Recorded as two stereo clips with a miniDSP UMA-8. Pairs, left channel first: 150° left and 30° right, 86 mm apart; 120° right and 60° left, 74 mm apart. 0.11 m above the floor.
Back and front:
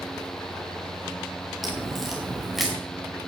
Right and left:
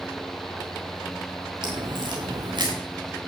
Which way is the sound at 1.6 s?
60° left.